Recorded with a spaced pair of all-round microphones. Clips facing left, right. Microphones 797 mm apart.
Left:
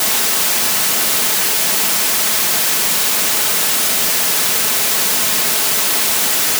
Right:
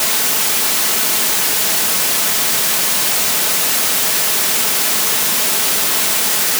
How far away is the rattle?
I don't hear a rattle.